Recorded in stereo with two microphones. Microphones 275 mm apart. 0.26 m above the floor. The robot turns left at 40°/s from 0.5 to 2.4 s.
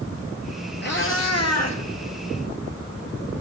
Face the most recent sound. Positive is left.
turn(degrees=75)